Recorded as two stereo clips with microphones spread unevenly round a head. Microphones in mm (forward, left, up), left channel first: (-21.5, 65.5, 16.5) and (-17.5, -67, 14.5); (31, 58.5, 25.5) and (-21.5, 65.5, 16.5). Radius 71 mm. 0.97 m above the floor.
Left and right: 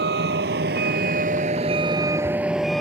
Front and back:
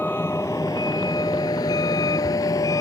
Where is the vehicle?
80° right; by 2.8 s 5° left.